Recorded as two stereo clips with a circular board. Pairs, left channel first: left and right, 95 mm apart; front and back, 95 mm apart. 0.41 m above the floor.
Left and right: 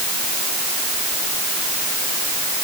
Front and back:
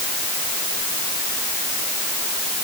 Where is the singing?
No singing in this recording.